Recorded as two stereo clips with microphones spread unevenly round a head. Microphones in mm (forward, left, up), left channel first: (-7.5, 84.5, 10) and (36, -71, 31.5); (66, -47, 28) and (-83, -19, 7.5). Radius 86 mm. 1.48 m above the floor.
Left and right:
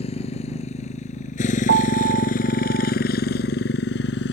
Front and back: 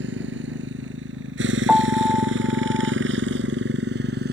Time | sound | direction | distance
0.0 | a motorcycle | 165° left | ?
1.7 | a piano | 105° right | ?